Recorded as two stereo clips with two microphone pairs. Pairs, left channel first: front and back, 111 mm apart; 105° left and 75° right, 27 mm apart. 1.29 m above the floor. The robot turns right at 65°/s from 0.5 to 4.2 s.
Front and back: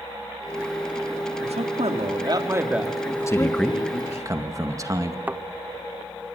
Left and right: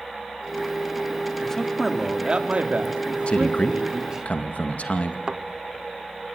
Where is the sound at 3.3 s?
60° left, 1.9 m; by 5.2 s 125° left, 1.9 m.